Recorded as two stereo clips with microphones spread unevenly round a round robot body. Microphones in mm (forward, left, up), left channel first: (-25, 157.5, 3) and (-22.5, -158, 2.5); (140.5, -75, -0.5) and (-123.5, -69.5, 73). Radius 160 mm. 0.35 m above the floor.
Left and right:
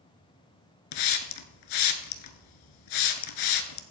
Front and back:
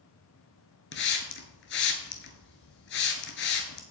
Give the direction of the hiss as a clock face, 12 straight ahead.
10 o'clock.